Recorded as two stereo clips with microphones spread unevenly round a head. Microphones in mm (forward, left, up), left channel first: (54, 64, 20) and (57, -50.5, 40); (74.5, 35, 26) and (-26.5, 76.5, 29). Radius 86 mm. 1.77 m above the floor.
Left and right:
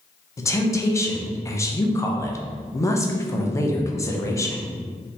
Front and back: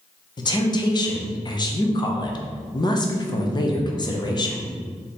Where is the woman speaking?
25° left, 0.8 m.